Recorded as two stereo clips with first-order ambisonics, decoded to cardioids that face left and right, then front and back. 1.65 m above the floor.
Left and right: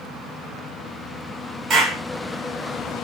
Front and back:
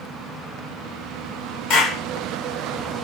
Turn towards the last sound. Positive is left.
turn(degrees=-25)